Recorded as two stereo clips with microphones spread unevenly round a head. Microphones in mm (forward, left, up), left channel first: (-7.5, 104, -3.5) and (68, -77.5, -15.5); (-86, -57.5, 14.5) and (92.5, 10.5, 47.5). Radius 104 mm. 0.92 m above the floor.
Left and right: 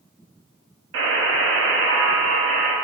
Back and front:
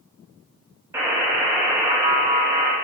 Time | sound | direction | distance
0.9 | a buzzer | 60° right | 1.2 m